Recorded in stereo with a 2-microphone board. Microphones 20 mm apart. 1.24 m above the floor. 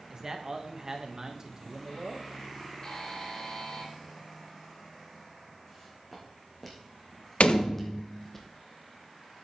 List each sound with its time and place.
0.1 s a man speaking: 30° right (ahead or behind), 1.4 m
2.8 s a buzzer: 30° left (ahead or behind), 2 m
5.7 s footsteps: 5° left (ahead or behind), 3.5 m; by 8.4 s 15° left (ahead or behind), 1.7 m
7.4 s a door slam: 90° left, 0.8 m